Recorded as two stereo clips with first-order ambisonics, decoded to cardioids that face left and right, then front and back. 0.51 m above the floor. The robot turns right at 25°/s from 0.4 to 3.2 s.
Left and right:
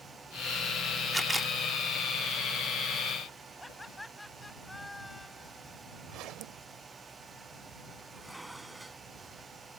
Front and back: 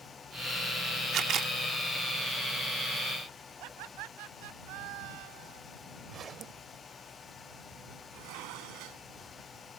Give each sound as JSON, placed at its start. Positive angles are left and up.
{"t": 1.1, "sound": "a camera shutter", "azimuth_deg": -170}
{"t": 3.6, "sound": "laughter", "azimuth_deg": 175}
{"t": 6.1, "sound": "a zipper", "azimuth_deg": -120}
{"t": 8.1, "sound": "dishes clattering", "azimuth_deg": -175}